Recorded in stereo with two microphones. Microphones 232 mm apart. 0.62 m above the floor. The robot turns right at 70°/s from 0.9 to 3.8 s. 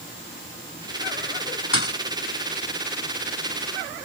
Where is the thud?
60° left (ahead or behind); by 2.0 s 70° left (ahead or behind).